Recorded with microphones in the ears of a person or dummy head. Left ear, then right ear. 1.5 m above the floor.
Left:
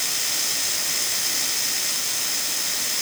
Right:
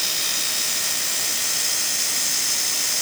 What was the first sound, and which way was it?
Only background noise.